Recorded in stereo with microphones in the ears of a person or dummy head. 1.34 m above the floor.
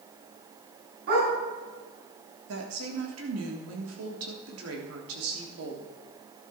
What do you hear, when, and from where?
1.1 s a dog barking: 60° right (ahead or behind), 5.5 m
2.5 s a woman speaking: 90° right, 3 m